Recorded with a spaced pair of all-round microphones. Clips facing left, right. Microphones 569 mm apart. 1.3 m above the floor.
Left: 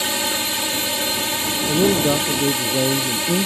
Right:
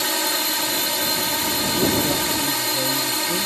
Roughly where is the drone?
Left.